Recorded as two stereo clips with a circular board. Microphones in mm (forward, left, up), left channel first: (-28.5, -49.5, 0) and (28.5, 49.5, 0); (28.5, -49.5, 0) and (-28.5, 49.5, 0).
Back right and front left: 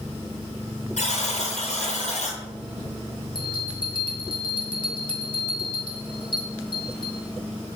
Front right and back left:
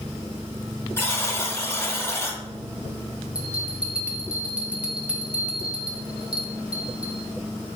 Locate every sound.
1.0 s a buzzer: 130° right, 1.9 m
3.4 s a bell: 160° right, 1.6 m